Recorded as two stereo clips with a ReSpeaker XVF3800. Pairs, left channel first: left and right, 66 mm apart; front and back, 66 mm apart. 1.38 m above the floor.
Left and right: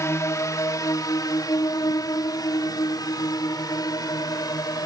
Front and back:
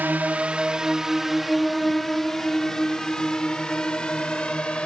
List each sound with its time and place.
0.0 s a drone: 125° left; by 4.9 s 75° left